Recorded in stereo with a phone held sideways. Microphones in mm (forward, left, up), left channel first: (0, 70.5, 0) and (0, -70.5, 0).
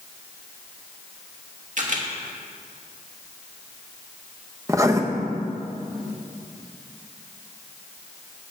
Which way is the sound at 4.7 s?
25° right (ahead or behind).